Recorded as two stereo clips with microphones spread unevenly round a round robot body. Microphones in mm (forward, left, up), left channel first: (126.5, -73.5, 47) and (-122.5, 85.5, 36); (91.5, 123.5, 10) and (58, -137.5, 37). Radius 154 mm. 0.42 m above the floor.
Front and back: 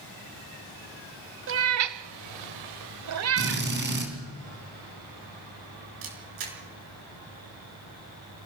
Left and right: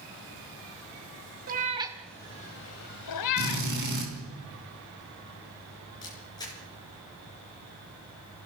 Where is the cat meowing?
160° right, 0.9 m; by 3.7 s 95° left, 1.0 m.